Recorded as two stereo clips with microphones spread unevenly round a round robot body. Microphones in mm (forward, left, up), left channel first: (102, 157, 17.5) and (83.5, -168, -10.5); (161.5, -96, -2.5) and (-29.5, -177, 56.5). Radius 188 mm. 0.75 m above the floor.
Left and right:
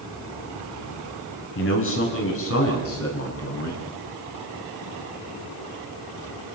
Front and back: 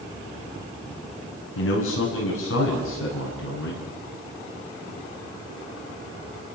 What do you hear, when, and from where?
1.6 s a man speaking: 35° left, 6.5 m; by 3.9 s 45° left, 8 m